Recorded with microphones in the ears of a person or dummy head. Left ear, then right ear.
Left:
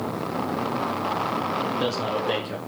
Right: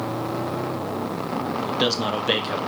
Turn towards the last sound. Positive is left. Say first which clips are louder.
# right 3 dB
turn(degrees=-30)  # may be behind; listen again after turning